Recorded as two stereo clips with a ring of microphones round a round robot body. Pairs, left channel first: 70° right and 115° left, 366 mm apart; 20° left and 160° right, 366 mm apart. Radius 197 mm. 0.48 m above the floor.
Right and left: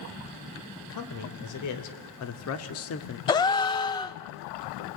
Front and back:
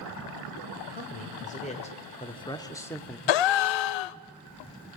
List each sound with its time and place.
0.8 s a man speaking: 40° right, 2.5 m; by 3.2 s 65° right, 1.2 m
3.3 s a gasp: 10° left, 0.5 m